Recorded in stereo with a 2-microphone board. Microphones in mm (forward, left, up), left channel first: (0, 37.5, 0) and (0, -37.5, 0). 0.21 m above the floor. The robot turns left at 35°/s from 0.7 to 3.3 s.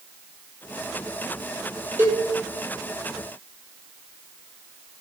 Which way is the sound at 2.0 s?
35° right (ahead or behind).